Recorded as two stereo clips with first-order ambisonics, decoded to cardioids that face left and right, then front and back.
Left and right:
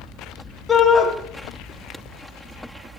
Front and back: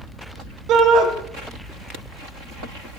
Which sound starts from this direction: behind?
A shout, at 0.7 s.